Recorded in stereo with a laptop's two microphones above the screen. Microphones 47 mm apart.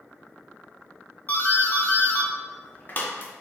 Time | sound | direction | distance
1.3 | a doorbell | 35° left (ahead or behind) | 0.6 m